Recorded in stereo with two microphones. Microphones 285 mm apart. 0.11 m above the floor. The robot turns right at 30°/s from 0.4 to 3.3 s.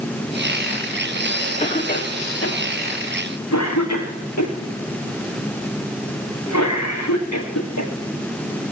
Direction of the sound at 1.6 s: 25° left (ahead or behind).